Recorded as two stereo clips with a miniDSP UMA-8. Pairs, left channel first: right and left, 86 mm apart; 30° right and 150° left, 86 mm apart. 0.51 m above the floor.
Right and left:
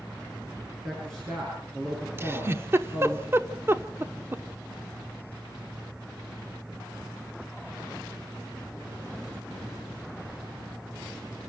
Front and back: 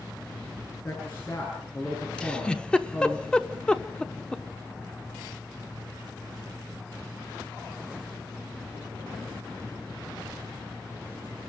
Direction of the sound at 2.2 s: 45° left.